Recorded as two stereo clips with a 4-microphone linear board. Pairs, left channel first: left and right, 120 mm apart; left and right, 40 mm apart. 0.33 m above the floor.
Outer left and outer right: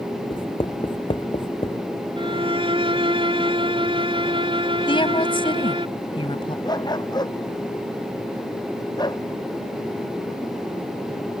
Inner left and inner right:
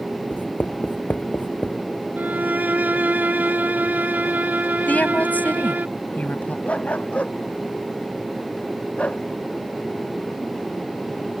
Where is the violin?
45° right (ahead or behind).